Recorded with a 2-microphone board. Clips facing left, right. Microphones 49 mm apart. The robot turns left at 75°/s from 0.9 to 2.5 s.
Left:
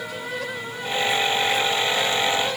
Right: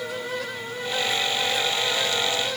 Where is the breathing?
I don't hear breathing.